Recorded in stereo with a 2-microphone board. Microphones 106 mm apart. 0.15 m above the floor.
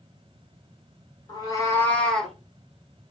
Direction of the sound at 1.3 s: 45° left (ahead or behind).